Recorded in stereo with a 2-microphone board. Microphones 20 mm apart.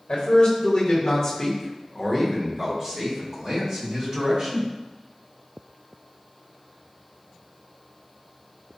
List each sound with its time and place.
0.1 s a man speaking: 70° left (ahead or behind), 1.0 m; by 4.7 s 50° right (ahead or behind), 2 m